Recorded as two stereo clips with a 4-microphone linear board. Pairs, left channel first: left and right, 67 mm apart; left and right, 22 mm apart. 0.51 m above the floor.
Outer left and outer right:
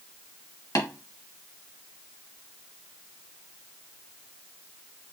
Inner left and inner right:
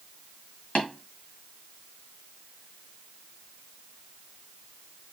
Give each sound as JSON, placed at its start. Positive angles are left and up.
{"t": 0.8, "sound": "tapping", "side_deg": 75, "distance_m": 2.5}